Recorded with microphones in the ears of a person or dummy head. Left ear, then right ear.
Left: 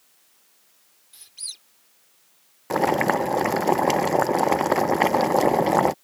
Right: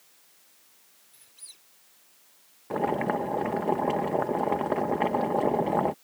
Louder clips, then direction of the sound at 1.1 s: Left 14 dB; 35° left (ahead or behind).